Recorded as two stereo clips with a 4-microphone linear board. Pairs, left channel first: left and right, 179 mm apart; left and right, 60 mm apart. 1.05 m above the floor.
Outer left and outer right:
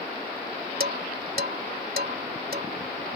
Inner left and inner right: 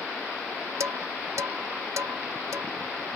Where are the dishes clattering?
60° right (ahead or behind).